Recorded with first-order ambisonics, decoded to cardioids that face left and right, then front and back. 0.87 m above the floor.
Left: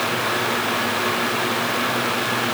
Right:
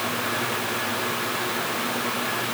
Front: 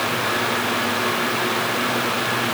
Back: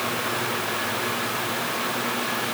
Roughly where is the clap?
No clap in this recording.